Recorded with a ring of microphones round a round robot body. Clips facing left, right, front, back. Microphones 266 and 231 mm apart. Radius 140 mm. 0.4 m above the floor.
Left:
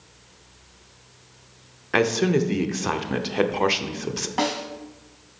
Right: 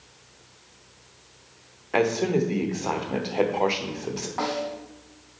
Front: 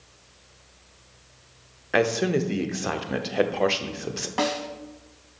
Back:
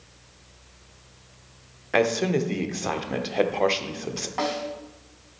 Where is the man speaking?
75° left, 0.8 m.